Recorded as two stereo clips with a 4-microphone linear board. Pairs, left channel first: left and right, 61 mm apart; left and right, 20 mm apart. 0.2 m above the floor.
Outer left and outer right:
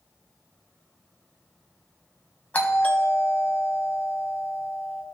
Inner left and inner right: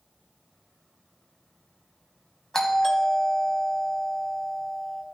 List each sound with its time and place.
2.5 s a doorbell: 25° left (ahead or behind), 1.4 m